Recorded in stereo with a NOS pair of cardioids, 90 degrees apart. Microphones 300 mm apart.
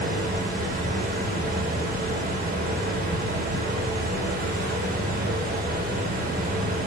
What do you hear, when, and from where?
0.0 s a fan: 30° right, 0.9 m